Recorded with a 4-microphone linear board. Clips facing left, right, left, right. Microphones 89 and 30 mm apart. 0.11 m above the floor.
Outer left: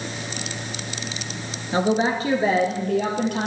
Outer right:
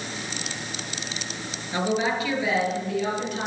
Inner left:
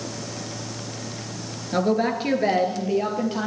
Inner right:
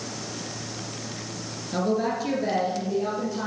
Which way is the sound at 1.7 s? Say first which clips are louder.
Outer left 4 dB, inner left 3 dB; 25° left (ahead or behind).